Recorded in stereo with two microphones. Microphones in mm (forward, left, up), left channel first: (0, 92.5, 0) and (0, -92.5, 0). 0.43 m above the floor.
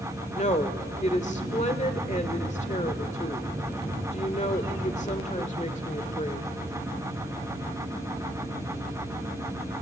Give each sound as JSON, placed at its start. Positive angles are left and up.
{"t": 0.3, "sound": "a woman speaking", "side_deg": 40, "distance_m": 1.5}